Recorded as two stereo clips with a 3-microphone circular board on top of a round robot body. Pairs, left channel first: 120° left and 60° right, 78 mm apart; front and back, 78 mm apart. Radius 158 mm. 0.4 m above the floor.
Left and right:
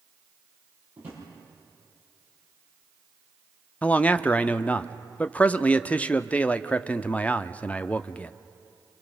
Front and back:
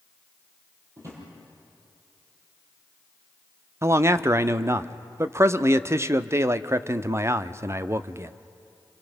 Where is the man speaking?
Straight behind, 0.9 m.